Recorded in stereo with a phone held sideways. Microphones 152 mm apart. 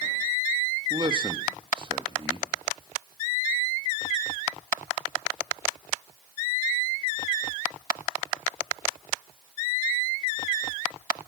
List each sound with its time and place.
0.9 s a man speaking: 35° right (ahead or behind), 1.6 m